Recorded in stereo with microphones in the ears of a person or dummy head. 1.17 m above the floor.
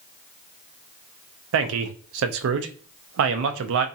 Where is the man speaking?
65° right (ahead or behind), 0.6 m.